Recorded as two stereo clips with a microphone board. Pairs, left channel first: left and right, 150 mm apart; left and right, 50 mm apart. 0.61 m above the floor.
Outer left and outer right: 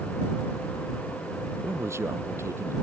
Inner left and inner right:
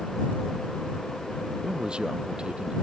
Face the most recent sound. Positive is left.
turn(degrees=-15)  # may be behind; listen again after turning